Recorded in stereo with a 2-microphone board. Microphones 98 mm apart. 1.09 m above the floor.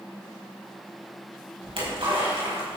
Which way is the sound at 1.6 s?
70° right (ahead or behind).